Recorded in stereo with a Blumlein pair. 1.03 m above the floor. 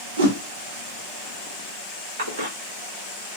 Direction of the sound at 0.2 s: 60° right.